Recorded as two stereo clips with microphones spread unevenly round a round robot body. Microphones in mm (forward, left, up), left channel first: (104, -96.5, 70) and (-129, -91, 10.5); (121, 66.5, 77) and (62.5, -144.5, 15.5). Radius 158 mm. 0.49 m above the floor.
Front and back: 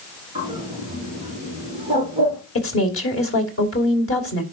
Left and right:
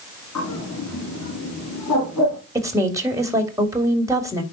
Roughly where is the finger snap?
No finger snap in this recording.